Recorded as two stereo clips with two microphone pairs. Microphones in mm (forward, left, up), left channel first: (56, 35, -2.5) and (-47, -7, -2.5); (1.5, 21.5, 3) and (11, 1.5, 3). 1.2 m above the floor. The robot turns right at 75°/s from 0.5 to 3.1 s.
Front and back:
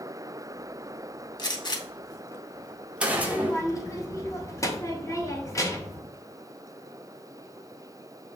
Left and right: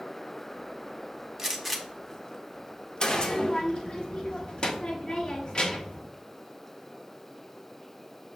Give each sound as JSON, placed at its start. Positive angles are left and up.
{"t": 1.4, "sound": "a gunshot", "azimuth_deg": 5, "distance_m": 0.6}
{"t": 3.1, "sound": "a child speaking", "azimuth_deg": 80, "distance_m": 0.9}